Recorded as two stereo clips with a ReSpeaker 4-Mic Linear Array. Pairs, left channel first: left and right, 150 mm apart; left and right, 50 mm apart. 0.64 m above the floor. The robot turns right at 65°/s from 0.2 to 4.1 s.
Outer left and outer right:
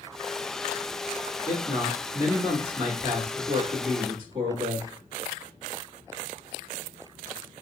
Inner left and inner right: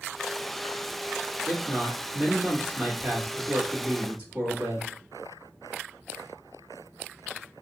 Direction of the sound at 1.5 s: 155° left.